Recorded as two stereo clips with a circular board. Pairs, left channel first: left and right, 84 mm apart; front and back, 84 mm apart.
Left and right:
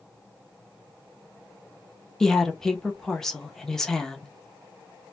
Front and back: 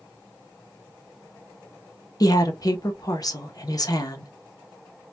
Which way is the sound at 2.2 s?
10° left.